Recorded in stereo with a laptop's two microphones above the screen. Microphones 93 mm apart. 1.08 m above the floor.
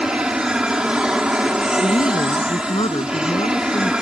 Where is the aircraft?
10° right (ahead or behind).